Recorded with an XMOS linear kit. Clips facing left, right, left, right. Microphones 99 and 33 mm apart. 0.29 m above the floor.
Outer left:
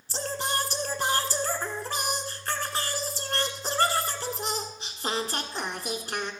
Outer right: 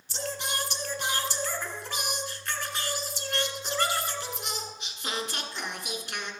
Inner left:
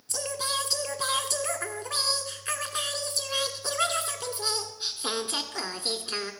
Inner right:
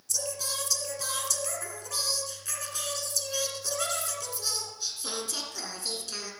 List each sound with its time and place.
0.1 s singing: 40° left (ahead or behind), 1.3 m